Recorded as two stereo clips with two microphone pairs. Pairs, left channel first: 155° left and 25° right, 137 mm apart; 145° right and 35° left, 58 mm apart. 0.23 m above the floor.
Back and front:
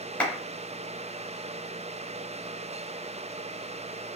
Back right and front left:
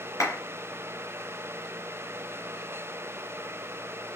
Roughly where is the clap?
Behind right.